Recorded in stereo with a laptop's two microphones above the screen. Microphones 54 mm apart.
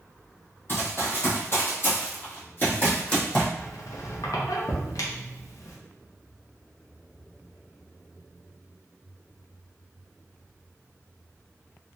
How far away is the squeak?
About 0.6 m.